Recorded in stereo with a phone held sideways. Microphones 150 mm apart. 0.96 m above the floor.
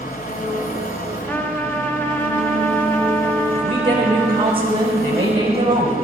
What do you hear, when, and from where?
0.0 s an engine running: 65° left (ahead or behind), 1.6 m
1.3 s a trumpet: 10° left (ahead or behind), 1.0 m
3.5 s a woman speaking: 35° right (ahead or behind), 4 m